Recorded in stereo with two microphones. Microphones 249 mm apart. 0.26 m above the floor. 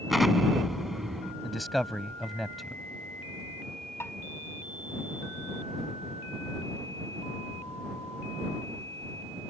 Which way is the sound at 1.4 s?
Centre (ahead or behind).